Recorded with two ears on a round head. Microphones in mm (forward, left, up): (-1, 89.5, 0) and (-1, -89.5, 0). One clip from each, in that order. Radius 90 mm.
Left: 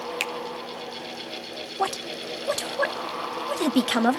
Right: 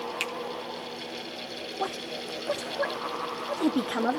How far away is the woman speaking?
About 0.7 m.